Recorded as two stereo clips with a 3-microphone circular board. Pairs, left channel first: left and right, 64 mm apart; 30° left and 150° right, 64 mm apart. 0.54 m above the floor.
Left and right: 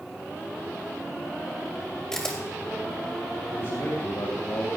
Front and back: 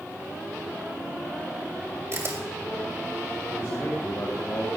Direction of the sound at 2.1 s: 170° left.